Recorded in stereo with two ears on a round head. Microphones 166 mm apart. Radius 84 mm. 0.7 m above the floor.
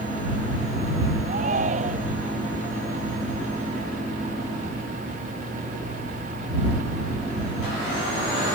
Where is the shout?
40° right (ahead or behind).